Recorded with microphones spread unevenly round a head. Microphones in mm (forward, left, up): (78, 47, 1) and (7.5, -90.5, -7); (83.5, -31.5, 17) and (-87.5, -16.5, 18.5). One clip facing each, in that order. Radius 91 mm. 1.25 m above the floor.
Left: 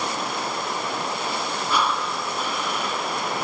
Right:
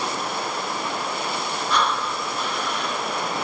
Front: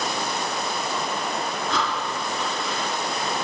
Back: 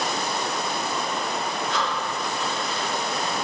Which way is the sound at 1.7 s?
20° right.